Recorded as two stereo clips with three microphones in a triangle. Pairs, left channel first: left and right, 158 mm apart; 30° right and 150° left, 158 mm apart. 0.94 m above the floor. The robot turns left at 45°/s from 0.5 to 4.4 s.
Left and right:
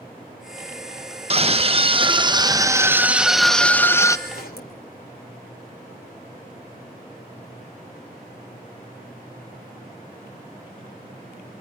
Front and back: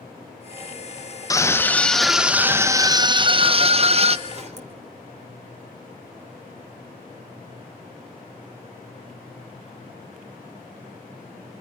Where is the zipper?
110° left, 2.5 m; by 4.8 s 105° left, 2.5 m.